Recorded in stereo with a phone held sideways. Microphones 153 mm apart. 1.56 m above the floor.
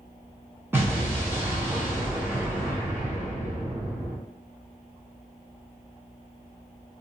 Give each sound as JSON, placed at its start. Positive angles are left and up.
{"t": 0.7, "sound": "an explosion", "side_deg": -15, "distance_m": 0.7}